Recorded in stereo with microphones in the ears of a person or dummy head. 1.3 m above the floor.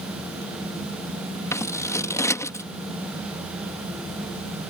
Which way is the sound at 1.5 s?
15° left (ahead or behind).